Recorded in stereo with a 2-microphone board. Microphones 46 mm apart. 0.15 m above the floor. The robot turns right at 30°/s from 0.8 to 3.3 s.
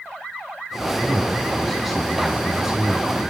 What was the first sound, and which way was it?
A man speaking, 150° left.